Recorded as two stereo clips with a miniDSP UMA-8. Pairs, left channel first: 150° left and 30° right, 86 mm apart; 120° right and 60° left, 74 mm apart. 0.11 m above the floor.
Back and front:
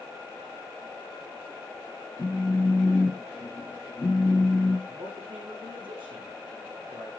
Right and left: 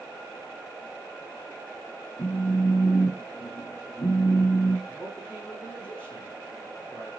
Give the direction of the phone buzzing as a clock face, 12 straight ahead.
5 o'clock.